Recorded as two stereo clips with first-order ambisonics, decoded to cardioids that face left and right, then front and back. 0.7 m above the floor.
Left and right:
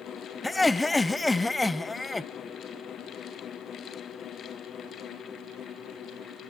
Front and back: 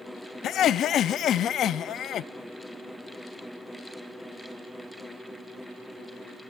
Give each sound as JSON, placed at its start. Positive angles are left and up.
{"t": 0.4, "sound": "laughter", "azimuth_deg": 10, "distance_m": 0.6}